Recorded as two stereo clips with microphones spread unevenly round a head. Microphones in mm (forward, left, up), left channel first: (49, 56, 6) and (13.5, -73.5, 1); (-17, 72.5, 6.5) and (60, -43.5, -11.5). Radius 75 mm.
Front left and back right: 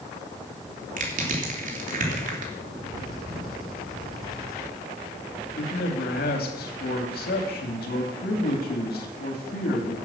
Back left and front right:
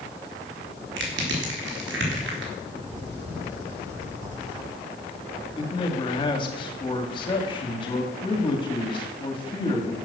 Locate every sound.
1.0 s crushing: 80° right, 3 m
2.7 s a bird: 15° right, 5 m
5.6 s a man speaking: 70° left, 2.5 m